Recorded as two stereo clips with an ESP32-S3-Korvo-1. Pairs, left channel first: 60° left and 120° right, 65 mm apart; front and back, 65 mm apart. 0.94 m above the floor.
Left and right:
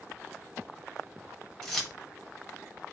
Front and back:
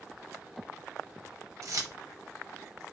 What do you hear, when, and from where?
1.6 s keys jangling: 140° left, 0.7 m